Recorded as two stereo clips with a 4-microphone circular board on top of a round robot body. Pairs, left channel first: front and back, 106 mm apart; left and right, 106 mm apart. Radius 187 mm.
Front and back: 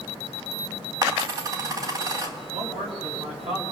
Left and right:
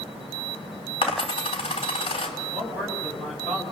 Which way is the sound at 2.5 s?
Straight behind.